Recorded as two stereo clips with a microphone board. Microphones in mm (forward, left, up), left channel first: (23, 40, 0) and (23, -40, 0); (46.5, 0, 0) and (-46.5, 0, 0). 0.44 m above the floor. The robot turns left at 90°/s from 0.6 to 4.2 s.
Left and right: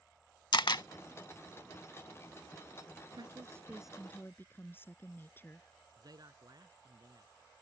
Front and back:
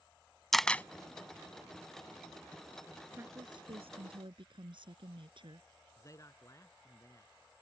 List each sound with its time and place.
0.5 s a camera shutter: 85° left; by 0.8 s 65° left
3.1 s a woman speaking: 110° right; by 5.7 s 155° left
6.0 s a man speaking: 55° right